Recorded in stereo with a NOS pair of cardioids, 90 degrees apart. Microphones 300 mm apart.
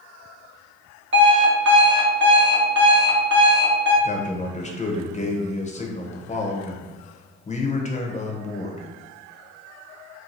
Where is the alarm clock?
40° right, 1.1 m.